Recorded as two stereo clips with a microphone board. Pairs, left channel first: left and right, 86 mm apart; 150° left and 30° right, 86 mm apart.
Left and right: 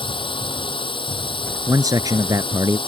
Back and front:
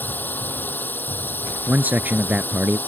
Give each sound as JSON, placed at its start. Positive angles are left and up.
{"t": 0.0, "sound": "a drone", "azimuth_deg": 80}
{"t": 1.7, "sound": "a man speaking", "azimuth_deg": -95}